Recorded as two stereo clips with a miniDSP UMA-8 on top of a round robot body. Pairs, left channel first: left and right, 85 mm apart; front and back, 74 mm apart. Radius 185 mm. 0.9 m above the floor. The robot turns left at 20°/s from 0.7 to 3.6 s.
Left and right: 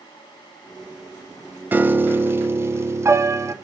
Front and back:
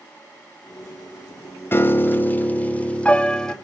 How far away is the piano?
About 1.0 m.